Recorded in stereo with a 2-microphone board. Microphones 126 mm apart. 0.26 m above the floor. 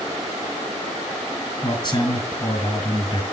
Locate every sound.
1.6 s a man speaking: 35° left (ahead or behind), 1.9 m